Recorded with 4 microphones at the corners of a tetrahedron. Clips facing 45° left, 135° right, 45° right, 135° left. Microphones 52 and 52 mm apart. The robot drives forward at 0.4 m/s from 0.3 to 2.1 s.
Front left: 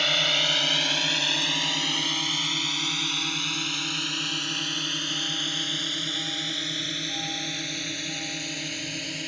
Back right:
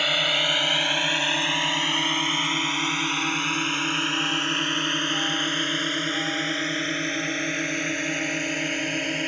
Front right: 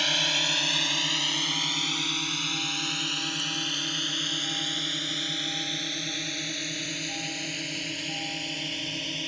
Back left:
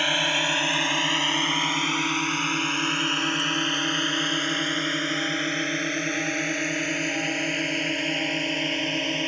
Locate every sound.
0.0 s a drone: 155° left; by 9.3 s 175° left